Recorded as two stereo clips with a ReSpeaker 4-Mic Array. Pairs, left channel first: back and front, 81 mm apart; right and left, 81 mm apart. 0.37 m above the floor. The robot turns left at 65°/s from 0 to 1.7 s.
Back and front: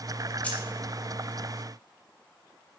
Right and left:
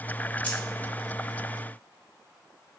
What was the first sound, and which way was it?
Keys jangling, 130° right.